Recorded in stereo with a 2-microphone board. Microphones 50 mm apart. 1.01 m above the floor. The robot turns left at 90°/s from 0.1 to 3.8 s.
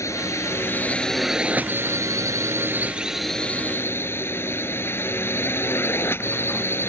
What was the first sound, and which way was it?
A drone, 100° left.